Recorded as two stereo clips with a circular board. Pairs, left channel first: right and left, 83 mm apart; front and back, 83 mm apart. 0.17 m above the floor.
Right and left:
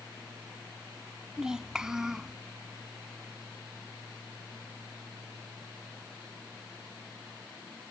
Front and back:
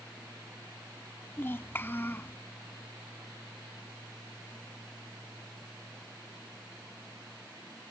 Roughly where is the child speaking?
Ahead.